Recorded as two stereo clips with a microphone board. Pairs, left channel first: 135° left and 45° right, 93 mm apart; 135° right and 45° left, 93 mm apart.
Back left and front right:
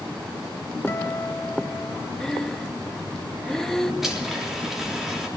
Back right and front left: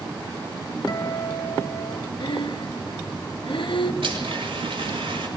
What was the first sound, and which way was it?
A guitar, 165° right.